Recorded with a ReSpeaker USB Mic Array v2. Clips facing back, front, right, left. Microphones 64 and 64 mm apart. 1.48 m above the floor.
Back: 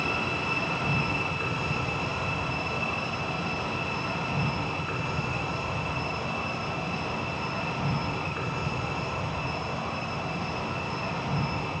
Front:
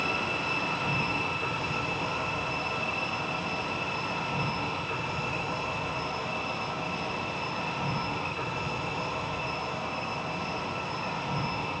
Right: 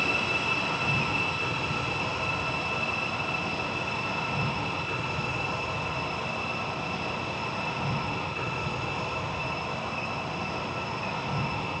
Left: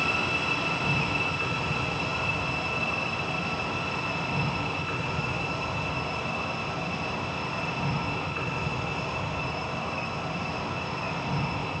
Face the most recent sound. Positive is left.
turn(degrees=160)